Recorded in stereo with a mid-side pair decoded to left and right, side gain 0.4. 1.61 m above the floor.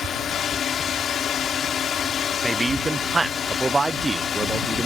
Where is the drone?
65° left; by 4.9 s 55° left.